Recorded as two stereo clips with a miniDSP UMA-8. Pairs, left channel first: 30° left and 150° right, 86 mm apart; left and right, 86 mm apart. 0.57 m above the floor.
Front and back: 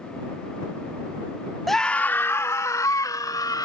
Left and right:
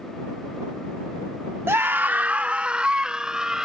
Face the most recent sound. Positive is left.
turn(degrees=-10)